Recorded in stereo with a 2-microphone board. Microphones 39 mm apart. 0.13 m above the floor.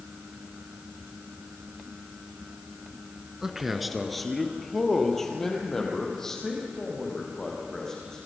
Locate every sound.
3.4 s a man speaking: 10° right (ahead or behind), 1.5 m; by 8.2 s 15° left (ahead or behind), 8 m